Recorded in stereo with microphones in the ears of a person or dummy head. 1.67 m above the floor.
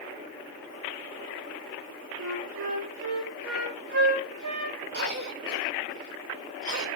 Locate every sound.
2.2 s a flute: 80° right, 1.7 m
4.9 s a cough: 65° right (ahead or behind), 1.2 m